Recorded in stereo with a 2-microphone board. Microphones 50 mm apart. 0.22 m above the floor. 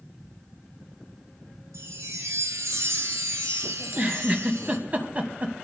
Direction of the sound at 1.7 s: 80° right.